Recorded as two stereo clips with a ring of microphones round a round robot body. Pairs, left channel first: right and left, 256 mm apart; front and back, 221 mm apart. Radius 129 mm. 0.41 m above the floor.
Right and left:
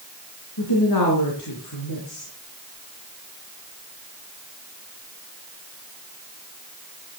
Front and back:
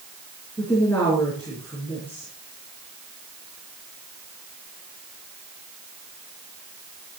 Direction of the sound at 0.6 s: 85° right.